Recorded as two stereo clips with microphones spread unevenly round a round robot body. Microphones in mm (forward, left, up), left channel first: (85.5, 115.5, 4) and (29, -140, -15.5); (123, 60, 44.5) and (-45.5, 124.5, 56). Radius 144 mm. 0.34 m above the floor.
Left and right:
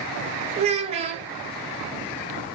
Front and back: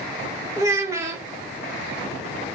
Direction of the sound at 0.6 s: 135° right.